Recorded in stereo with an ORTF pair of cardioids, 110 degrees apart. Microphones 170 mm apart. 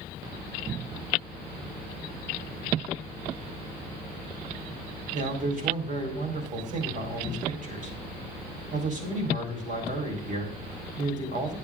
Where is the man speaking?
45° right, 4 m.